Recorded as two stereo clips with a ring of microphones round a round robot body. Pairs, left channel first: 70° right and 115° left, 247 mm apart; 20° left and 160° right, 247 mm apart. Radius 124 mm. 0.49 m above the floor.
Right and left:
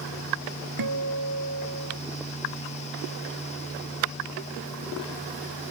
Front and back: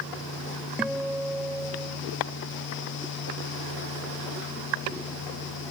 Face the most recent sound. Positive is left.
turn(degrees=115)